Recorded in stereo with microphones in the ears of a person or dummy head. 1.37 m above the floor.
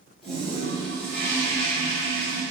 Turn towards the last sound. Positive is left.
turn(degrees=0)  # may be behind; listen again after turning